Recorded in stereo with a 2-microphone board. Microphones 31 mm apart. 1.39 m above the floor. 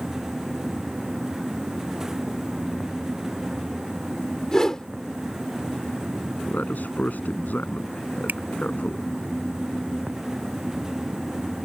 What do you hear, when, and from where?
4.5 s a whoosh: 20° left (ahead or behind)
6.5 s a man speaking: 70° left (ahead or behind)
8.3 s a finger snap: 70° right (ahead or behind)